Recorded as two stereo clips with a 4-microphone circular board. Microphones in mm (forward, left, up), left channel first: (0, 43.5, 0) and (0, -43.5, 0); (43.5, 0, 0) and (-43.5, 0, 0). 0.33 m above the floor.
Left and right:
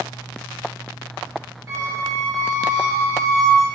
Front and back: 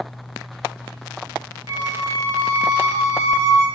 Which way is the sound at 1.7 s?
140° right.